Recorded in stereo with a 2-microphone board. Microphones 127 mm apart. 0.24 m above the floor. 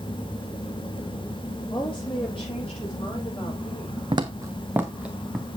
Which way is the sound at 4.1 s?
40° right (ahead or behind).